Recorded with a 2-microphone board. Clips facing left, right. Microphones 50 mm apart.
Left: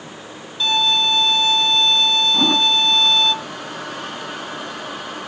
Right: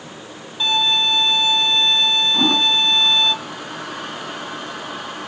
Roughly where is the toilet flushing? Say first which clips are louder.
Even; centre.